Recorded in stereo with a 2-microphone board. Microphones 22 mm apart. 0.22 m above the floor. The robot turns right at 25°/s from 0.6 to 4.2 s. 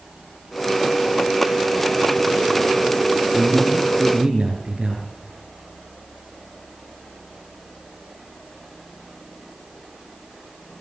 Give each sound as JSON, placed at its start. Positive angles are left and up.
{"t": 3.3, "sound": "a man speaking", "side_deg": -30, "distance_m": 4.5}